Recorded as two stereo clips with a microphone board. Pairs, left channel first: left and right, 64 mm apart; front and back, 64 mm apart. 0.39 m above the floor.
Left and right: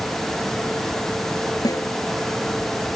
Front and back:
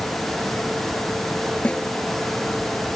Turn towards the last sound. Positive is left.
turn(degrees=70)